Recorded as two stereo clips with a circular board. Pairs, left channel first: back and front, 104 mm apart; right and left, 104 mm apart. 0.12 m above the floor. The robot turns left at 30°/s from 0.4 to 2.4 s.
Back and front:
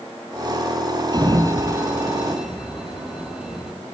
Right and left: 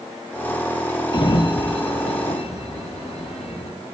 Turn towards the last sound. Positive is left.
turn(degrees=-85)